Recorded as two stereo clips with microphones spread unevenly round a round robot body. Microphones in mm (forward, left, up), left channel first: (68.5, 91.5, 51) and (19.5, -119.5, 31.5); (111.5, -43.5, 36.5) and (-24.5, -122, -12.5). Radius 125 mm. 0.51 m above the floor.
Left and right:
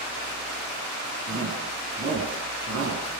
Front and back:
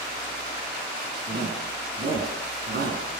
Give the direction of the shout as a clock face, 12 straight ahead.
5 o'clock.